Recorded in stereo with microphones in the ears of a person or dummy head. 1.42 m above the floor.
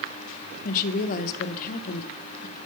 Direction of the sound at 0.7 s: 55° left (ahead or behind).